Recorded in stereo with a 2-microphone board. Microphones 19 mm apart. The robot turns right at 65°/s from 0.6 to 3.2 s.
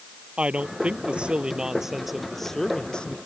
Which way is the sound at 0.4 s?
100° right.